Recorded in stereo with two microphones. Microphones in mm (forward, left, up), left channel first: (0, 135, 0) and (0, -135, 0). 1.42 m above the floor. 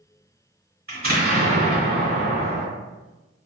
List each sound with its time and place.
0.9 s an explosion: 35° right (ahead or behind), 1.5 m